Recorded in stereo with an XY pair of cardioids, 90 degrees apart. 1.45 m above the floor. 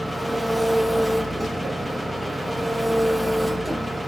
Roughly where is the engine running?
Ahead.